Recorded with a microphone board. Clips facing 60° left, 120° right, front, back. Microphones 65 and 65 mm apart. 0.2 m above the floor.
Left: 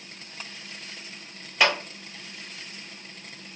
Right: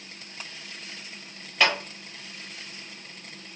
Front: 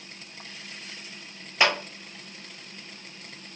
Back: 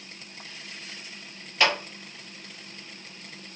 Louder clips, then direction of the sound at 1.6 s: Left 1 dB, front 1 dB; 15° right.